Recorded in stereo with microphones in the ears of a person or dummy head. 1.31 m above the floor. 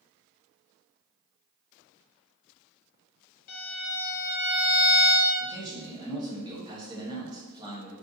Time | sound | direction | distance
3.5 | a violin | 50° left (ahead or behind) | 0.7 m
5.4 | a man speaking | 20° right (ahead or behind) | 1.0 m